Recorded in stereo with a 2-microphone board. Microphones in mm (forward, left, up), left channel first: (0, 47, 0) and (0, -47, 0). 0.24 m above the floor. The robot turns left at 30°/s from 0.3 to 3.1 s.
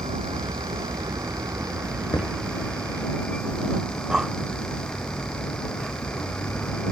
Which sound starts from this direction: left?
Knocking, at 2.1 s.